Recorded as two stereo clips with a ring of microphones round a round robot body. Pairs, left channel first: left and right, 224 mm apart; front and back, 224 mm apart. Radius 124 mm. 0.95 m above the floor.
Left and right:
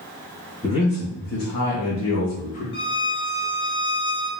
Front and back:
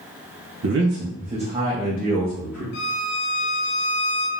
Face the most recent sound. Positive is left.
turn(degrees=30)